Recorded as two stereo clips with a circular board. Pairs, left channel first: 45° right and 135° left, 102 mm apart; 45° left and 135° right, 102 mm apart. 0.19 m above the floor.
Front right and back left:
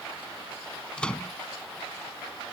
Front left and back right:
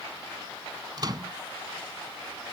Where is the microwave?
120° right.